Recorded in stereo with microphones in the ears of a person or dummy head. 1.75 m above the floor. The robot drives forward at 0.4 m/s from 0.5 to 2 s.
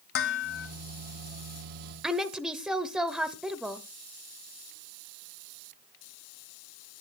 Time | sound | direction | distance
0.1 | dishes clattering | 60° left (ahead or behind) | 1.9 m
2.0 | a woman speaking | centre (ahead or behind) | 0.9 m